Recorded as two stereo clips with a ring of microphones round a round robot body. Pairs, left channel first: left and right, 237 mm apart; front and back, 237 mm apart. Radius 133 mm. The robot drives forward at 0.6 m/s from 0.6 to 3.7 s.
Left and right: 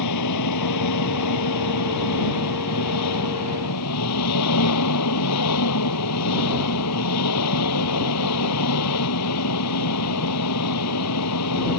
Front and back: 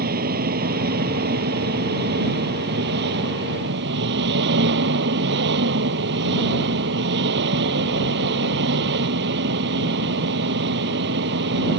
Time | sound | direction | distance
0.0 | an engine running | 120° left | ?